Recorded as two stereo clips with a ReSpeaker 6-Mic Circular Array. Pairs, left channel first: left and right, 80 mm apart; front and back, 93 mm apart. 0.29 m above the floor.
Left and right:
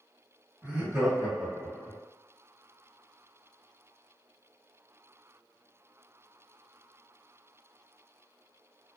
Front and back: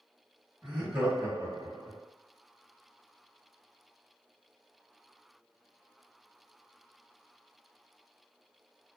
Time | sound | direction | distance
0.6 | laughter | 120° right | 0.9 m